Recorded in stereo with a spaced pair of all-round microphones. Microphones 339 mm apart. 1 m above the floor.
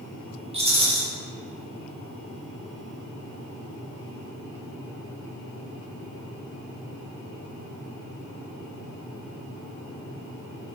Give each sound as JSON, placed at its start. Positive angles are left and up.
{"t": 0.5, "sound": "a rattle", "side_deg": -20, "distance_m": 0.6}